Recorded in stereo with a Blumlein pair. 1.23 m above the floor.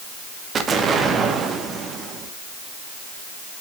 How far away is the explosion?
About 1.4 m.